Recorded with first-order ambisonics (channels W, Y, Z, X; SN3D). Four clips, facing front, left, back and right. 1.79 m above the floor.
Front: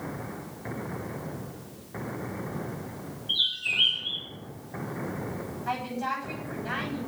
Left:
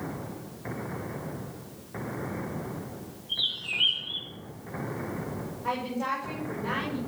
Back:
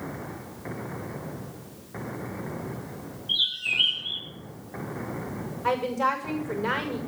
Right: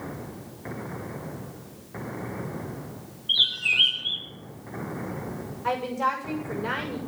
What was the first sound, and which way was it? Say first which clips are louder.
A bird: right 8 dB, back 1 dB; 95° right.